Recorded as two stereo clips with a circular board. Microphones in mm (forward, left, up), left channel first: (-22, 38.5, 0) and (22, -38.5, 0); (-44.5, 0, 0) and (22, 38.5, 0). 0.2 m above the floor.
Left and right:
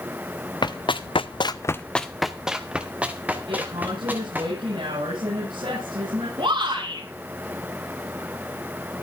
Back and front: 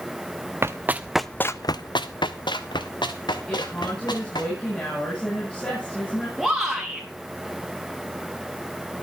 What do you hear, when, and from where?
0.6 s running footsteps: 90° left, 1.0 m; by 4.5 s 130° right, 3.5 m
3.5 s a woman speaking: 75° right, 8.5 m
6.4 s a shout: 60° right, 4 m